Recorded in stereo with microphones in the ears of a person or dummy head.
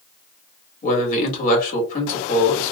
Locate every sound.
0.8 s a man speaking: 45° left (ahead or behind), 1.6 m